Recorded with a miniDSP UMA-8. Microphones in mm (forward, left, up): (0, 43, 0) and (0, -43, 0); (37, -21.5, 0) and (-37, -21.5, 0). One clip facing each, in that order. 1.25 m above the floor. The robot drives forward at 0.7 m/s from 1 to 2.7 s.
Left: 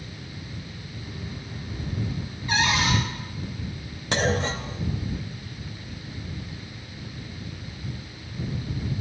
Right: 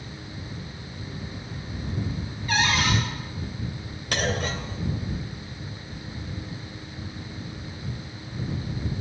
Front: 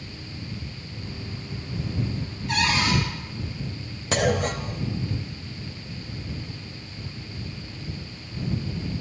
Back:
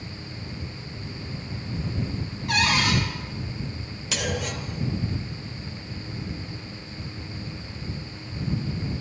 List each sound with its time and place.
2.5 s a cupboard door: 160° left, 4 m
4.1 s a clunk: 35° left, 0.8 m